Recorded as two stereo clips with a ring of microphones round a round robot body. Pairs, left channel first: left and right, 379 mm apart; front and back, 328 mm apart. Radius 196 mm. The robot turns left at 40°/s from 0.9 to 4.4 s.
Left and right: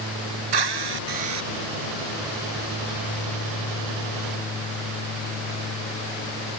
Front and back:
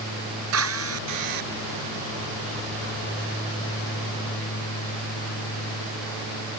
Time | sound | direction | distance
0.5 | a drill | 120° right | ?